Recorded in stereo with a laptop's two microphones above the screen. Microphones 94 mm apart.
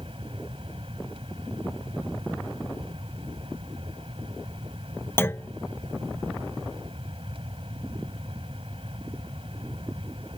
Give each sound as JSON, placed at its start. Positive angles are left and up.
{"t": 0.0, "sound": "a fan", "side_deg": -85}
{"t": 5.2, "sound": "a clunk", "side_deg": 25}